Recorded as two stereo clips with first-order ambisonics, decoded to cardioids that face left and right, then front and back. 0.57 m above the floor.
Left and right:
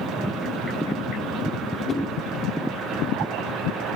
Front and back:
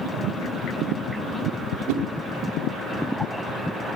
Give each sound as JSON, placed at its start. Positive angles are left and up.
{"t": 1.9, "sound": "a whoosh", "azimuth_deg": 155, "distance_m": 1.4}